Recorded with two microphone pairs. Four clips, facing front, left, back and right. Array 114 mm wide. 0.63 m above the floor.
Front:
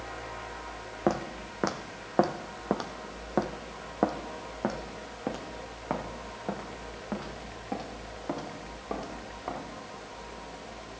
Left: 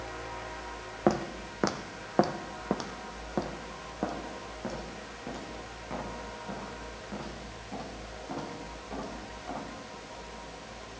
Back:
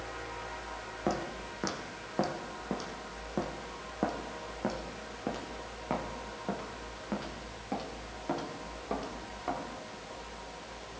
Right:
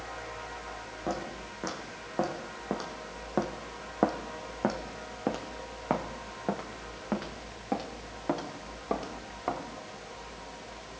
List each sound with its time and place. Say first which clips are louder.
1.1 s footsteps: left 7 dB, front 5 dB; 50° left, 1.5 m; by 9.6 s 85° right, 4 m